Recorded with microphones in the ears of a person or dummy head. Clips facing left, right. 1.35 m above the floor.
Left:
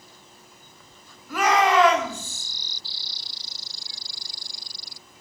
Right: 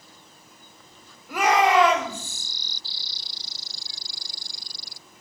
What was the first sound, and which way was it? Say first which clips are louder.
A shout: right 1 dB; 15° right (ahead or behind).